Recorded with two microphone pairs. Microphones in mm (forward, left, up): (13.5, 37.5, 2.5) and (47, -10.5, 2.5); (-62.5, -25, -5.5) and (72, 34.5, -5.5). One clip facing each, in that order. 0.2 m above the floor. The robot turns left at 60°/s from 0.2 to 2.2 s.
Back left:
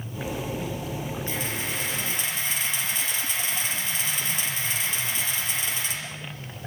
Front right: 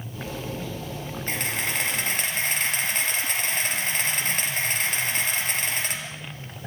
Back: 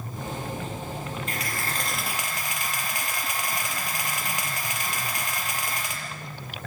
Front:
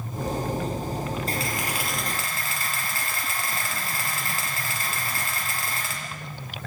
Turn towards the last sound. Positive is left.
turn(degrees=-85)